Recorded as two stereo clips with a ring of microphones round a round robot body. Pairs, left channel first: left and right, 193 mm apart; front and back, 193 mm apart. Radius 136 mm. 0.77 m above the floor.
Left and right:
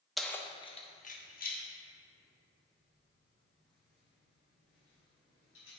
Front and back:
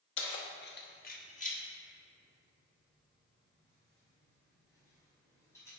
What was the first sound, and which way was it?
Keys jangling, straight ahead.